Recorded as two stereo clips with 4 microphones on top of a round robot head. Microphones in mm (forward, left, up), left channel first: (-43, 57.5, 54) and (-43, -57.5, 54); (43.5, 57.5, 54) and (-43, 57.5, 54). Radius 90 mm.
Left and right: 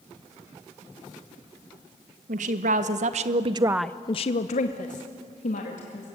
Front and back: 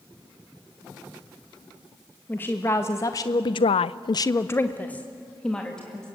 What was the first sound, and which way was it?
A woman speaking, 75° right.